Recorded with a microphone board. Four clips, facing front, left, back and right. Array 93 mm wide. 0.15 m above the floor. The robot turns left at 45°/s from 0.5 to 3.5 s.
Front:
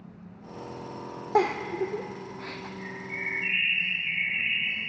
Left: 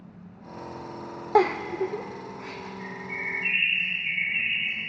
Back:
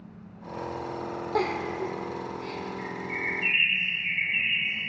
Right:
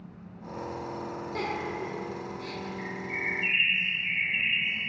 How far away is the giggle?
About 1.1 m.